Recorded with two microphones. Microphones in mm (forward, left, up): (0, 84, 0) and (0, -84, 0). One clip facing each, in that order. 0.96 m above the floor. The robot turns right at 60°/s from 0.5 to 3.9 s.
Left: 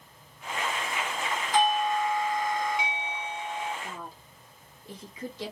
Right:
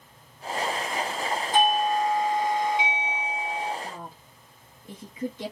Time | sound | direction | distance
1.5 | a doorbell | 130° right | 1.3 m
3.8 | a woman speaking | 60° right (ahead or behind) | 1.1 m